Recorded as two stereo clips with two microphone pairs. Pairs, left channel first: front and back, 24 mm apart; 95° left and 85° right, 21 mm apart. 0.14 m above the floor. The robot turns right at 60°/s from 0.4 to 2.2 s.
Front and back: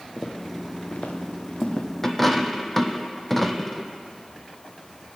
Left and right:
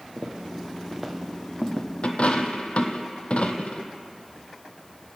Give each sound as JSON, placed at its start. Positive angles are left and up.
{"t": 0.2, "sound": "footsteps", "azimuth_deg": -60, "distance_m": 1.9}
{"t": 2.0, "sound": "a dropped coin", "azimuth_deg": 75, "distance_m": 0.9}